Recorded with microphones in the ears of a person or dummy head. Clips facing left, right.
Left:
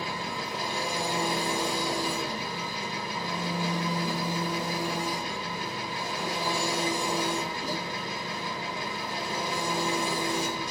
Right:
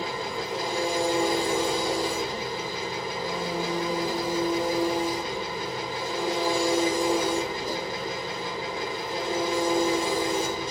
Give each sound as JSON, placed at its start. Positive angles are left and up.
{"t": 0.0, "sound": "an engine running", "side_deg": -25, "distance_m": 4.5}